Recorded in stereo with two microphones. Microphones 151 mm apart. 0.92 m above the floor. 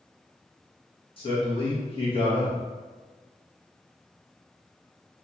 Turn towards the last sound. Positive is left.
turn(degrees=35)  # may be behind; listen again after turning